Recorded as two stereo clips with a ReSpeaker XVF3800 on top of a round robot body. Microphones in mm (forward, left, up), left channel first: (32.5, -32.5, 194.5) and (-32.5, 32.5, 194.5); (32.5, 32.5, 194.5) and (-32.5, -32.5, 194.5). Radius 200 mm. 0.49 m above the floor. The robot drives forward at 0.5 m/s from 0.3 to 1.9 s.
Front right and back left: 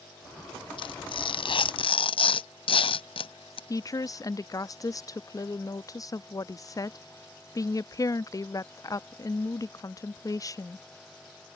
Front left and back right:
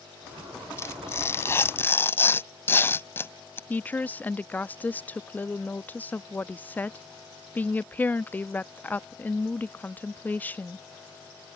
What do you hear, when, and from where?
0.8 s tearing paper: 15° right; by 3.6 s 20° right
3.7 s a woman speaking: 20° right